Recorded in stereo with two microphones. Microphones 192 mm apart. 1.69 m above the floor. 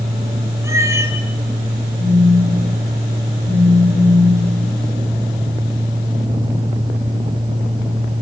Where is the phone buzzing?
60° left (ahead or behind), 5 m.